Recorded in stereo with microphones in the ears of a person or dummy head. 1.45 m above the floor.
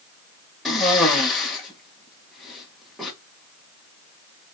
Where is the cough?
5° left (ahead or behind), 1.6 m.